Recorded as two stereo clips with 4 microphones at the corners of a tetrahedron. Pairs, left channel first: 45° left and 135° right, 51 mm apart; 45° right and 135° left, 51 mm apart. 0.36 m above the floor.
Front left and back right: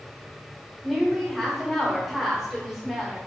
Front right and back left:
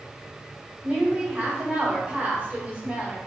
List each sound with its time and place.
0.8 s a woman speaking: 135° left, 1.2 m